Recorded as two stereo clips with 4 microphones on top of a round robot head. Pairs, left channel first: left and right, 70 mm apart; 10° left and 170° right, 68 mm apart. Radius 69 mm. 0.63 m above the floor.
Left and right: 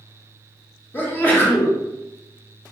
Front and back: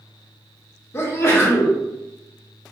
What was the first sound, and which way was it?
A sneeze, 40° left.